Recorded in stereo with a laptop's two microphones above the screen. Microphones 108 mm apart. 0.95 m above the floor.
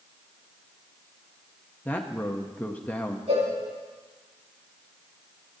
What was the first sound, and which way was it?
A man speaking, 15° left (ahead or behind).